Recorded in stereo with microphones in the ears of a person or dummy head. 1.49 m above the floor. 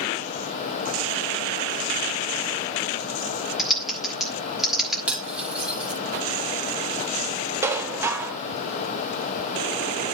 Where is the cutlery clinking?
5° right (ahead or behind), 2 m.